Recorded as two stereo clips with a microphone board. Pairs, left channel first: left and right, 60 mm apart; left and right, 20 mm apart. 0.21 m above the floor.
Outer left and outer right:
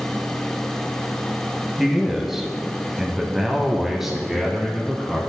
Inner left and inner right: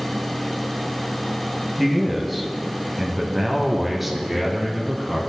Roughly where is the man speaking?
Centre.